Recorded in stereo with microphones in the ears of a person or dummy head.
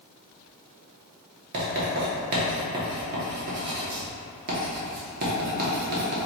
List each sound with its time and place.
1.5 s writing: 50° right (ahead or behind), 1.1 m